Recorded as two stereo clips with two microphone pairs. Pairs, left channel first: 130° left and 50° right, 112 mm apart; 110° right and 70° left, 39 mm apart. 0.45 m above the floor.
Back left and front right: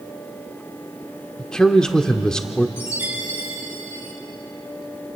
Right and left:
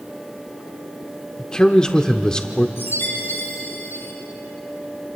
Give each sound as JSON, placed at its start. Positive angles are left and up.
{"t": 1.4, "sound": "a man speaking", "azimuth_deg": -150, "distance_m": 0.8}
{"t": 2.8, "sound": "a chime", "azimuth_deg": -120, "distance_m": 6.5}